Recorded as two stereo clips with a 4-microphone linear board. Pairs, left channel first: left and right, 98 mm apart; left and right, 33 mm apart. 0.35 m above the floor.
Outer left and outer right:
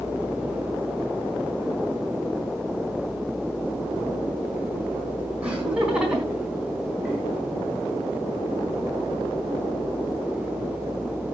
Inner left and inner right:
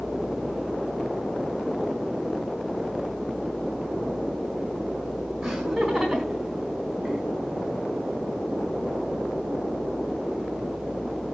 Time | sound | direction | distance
5.4 | laughter | 15° right (ahead or behind) | 5 m